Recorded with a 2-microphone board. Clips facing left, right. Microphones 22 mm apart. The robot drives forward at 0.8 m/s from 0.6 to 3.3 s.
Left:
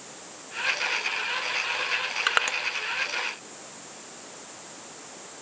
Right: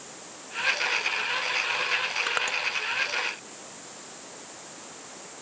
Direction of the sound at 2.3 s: 30° left (ahead or behind).